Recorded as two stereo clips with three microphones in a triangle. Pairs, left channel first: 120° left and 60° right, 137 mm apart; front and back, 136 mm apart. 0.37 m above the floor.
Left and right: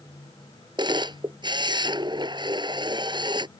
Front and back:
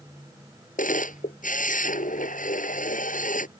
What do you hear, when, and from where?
0.8 s a camera shutter: 5° right